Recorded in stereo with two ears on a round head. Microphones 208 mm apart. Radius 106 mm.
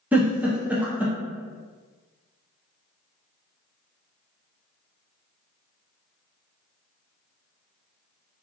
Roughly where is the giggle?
Centre.